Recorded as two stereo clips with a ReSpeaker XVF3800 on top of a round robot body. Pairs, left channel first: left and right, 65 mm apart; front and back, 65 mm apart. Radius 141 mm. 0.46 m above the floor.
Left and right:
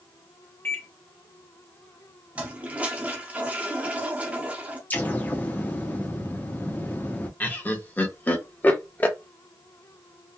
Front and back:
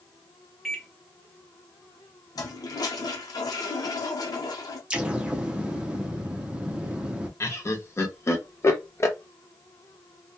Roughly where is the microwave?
Left.